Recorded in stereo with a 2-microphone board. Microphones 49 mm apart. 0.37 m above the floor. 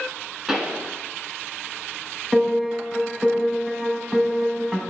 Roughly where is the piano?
Centre.